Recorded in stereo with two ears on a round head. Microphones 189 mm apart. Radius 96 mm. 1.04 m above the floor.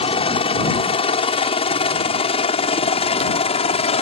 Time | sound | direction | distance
0.0 | a helicopter | 30° left (ahead or behind) | ?